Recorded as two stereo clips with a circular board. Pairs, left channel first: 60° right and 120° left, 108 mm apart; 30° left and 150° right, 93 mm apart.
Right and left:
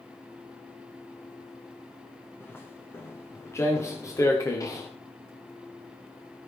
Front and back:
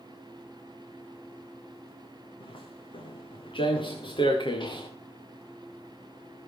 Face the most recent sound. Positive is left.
turn(degrees=-5)